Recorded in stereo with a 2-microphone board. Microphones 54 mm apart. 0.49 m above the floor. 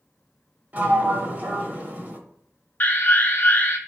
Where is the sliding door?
35° right (ahead or behind), 0.7 m.